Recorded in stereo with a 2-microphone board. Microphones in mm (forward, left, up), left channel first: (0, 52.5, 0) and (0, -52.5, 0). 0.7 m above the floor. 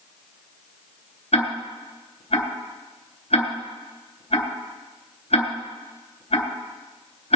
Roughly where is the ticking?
Left.